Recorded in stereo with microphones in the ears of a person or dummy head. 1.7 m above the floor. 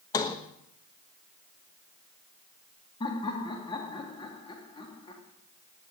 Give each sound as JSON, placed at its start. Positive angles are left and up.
{"t": 0.1, "sound": "a sliding door", "side_deg": 20, "distance_m": 1.1}
{"t": 3.0, "sound": "laughter", "side_deg": 25, "distance_m": 3.0}